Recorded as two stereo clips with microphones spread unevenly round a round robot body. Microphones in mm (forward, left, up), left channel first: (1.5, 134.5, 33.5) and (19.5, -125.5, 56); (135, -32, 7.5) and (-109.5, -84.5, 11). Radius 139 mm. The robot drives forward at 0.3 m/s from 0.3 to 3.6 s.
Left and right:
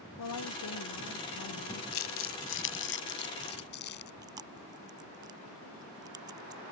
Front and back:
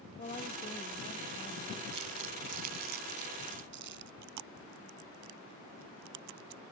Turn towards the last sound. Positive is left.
turn(degrees=-160)